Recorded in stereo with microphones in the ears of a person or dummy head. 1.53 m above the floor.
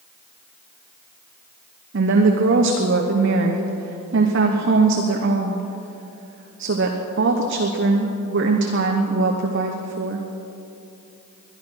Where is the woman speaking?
65° right (ahead or behind), 1.1 m.